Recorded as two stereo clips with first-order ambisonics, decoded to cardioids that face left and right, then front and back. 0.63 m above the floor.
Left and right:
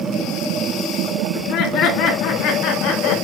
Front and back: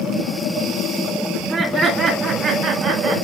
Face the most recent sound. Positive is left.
turn(degrees=125)